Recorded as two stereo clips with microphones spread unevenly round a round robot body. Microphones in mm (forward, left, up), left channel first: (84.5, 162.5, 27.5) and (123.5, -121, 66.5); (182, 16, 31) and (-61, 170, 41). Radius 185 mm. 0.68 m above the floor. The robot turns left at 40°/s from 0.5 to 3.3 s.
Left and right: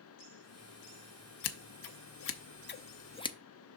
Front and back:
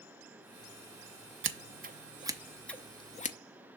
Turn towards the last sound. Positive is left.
turn(degrees=30)